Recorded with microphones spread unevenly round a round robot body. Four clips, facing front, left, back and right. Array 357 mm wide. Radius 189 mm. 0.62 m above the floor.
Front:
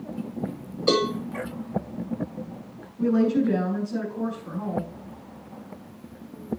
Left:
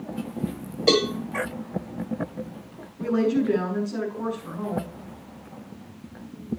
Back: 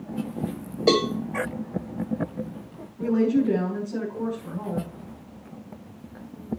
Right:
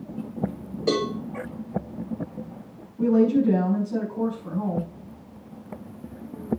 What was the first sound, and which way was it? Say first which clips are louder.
A cowbell: left 3 dB, back 1 dB; 165° right.